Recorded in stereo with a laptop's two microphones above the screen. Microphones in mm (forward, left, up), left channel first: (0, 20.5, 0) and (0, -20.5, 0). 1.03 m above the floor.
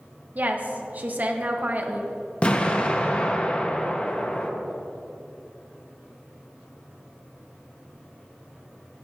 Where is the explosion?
30° left (ahead or behind), 0.9 m.